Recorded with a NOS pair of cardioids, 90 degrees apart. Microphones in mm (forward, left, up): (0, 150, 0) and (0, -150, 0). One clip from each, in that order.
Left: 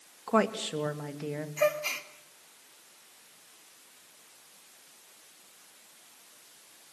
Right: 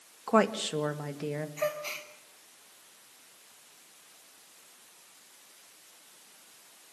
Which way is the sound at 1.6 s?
30° left.